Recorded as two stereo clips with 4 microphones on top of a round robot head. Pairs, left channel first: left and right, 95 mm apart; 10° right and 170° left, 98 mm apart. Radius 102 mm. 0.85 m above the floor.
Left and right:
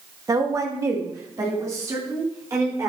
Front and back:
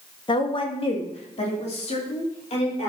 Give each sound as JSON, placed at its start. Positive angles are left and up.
{"t": 0.3, "sound": "a woman speaking", "azimuth_deg": -40, "distance_m": 1.4}